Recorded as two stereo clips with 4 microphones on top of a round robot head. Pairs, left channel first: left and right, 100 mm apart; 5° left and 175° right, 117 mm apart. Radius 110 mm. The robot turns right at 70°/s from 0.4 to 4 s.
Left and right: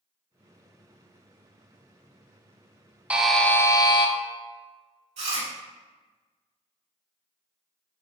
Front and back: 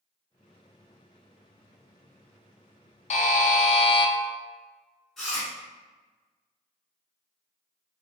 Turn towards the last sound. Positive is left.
turn(degrees=-85)